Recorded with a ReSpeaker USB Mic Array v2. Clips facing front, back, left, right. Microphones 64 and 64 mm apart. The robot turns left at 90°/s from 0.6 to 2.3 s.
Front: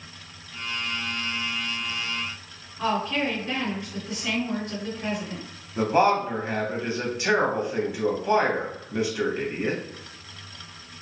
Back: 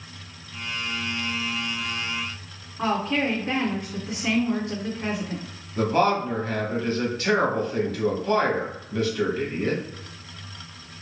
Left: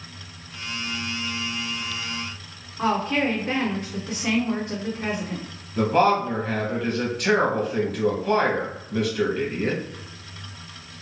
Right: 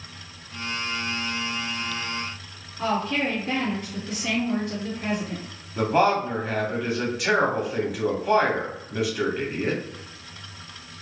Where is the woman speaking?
140° left, 1.6 m.